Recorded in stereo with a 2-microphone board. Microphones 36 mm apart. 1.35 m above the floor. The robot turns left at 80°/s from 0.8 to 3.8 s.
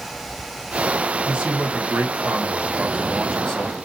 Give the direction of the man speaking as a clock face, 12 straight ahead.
1 o'clock.